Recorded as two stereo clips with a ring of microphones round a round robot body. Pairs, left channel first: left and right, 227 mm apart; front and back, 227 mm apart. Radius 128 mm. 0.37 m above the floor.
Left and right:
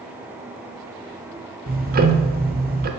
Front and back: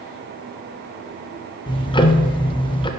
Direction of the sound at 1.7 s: 60° right.